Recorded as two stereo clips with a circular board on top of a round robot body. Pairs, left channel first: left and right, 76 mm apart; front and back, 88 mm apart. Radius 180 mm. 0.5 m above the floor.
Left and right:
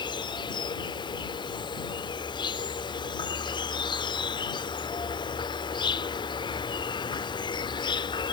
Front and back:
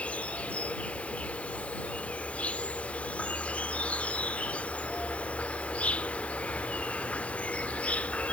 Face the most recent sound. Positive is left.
turn(degrees=75)